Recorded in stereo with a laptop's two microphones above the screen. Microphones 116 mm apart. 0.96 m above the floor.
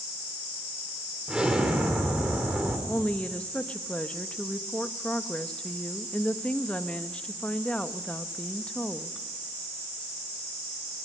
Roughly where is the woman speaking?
Centre.